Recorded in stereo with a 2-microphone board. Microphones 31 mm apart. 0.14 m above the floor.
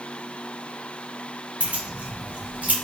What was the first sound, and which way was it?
Keys jangling, 50° right (ahead or behind).